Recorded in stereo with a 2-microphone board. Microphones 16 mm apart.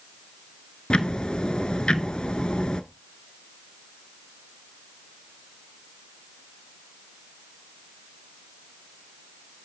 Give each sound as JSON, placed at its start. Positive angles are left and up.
{"t": 0.9, "sound": "ticking", "side_deg": 65, "distance_m": 0.8}